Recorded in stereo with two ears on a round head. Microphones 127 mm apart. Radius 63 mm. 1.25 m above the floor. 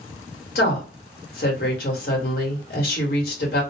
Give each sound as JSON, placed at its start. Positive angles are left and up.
{"t": 0.6, "sound": "a woman speaking", "side_deg": 70, "distance_m": 1.4}